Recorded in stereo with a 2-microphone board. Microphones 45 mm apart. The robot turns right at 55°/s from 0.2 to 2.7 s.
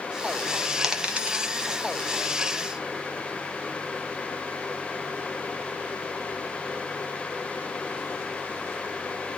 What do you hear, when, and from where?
0.8 s a dropped coin: 10° right (ahead or behind), 1.1 m; by 1.5 s 45° right (ahead or behind), 1.1 m